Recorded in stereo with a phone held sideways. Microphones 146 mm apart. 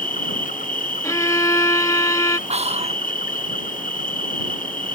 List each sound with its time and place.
0.0 s an insect: 65° left (ahead or behind)
1.0 s a violin: 20° left (ahead or behind)
2.5 s whispering: 45° right (ahead or behind)